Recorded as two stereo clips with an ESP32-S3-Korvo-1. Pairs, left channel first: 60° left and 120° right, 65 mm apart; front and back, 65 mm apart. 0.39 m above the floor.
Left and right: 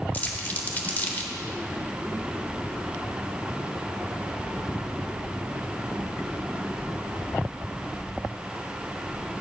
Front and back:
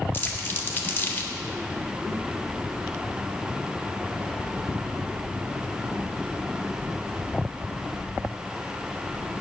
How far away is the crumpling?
About 0.9 m.